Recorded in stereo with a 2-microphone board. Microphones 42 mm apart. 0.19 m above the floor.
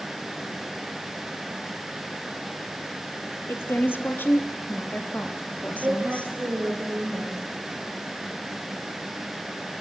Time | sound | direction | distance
3.5 | a woman speaking | 60° left (ahead or behind) | 4 m
5.8 | a woman speaking | 45° right (ahead or behind) | 8.5 m